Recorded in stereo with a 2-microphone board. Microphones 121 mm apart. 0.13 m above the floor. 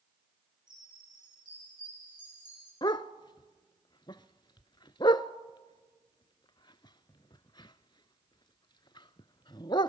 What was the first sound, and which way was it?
A chime, 35° right (ahead or behind).